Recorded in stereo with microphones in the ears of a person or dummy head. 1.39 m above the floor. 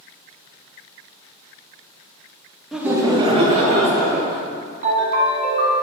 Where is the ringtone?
40° right (ahead or behind), 1.8 m.